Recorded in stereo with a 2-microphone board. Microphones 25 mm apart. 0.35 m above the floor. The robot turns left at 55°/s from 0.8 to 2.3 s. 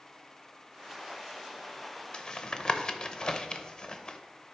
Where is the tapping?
40° left (ahead or behind), 0.6 m; by 4.2 s 35° left (ahead or behind), 0.6 m.